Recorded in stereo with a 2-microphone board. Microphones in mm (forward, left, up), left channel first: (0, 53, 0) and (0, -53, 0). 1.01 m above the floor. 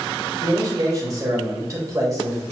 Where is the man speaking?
30° right (ahead or behind), 1.0 m.